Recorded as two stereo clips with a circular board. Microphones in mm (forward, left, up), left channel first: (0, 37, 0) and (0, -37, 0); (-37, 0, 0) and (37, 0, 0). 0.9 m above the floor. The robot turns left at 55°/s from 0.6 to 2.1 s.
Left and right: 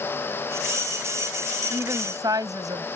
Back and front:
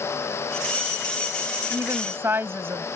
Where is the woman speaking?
35° right; by 2.9 s 60° right.